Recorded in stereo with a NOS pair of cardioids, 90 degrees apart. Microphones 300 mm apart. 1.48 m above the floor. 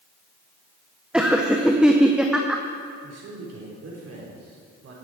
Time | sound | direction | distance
1.1 | laughter | 5° right | 0.8 m
3.0 | a man speaking | 50° right | 4 m